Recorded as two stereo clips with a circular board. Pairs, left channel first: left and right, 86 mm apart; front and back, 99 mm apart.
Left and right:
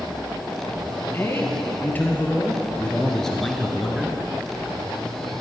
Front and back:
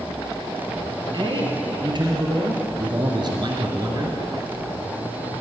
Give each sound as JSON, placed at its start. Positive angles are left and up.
{"t": 1.1, "sound": "a man speaking", "azimuth_deg": 145, "distance_m": 2.5}